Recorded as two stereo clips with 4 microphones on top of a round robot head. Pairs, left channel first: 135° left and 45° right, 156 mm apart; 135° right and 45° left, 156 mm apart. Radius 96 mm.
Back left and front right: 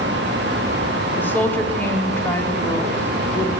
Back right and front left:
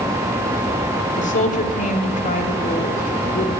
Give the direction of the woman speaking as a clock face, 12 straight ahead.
5 o'clock.